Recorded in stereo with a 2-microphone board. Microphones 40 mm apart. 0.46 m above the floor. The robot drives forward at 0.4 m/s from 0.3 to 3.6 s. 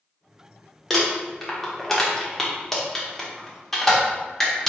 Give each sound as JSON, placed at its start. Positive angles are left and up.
{"t": 0.9, "sound": "crumpling", "side_deg": 5, "distance_m": 1.1}